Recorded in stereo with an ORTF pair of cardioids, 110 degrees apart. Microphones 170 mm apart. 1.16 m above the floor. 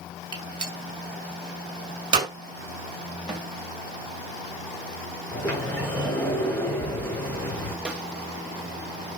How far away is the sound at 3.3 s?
About 7 m.